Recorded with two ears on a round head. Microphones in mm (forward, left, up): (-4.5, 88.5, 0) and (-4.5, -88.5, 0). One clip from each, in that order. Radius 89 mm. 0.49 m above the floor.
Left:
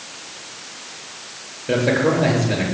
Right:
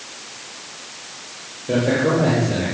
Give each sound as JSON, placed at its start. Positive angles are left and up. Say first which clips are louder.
{"t": 1.7, "sound": "a man speaking", "louder": "left 1 dB", "side_deg": 60, "distance_m": 9.5}